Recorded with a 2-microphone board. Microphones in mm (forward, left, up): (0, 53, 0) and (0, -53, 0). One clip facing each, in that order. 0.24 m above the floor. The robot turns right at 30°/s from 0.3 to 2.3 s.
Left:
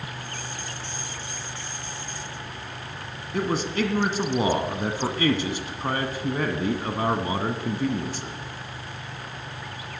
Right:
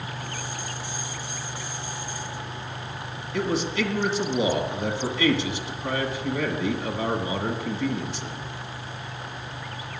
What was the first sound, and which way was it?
A man speaking, 45° left (ahead or behind).